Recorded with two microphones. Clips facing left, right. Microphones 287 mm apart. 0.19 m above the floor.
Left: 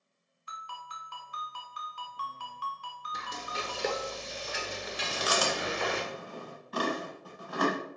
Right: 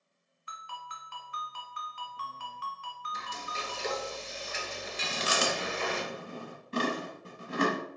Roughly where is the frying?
Left.